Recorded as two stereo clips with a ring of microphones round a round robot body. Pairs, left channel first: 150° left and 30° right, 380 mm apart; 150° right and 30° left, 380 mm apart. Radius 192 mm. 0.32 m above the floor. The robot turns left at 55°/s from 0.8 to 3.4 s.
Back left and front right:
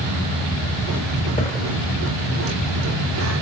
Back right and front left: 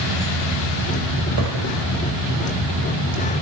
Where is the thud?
80° left, 5.5 m; by 1.7 s 60° left, 5.5 m.